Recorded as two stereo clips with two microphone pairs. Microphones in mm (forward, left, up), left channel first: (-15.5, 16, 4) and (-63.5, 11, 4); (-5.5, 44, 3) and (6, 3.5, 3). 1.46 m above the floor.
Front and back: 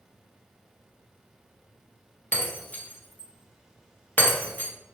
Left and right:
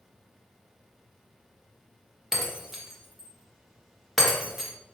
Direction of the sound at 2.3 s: 10° left.